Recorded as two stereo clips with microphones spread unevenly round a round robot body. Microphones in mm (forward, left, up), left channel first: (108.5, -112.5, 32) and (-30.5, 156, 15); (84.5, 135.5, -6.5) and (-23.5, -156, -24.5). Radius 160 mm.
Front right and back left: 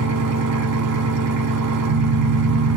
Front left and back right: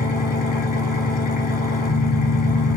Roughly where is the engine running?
Behind left.